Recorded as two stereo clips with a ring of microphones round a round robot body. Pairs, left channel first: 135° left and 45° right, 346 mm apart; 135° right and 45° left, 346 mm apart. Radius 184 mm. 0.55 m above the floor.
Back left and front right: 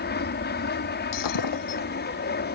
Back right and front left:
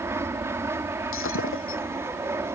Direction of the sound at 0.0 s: 120° left.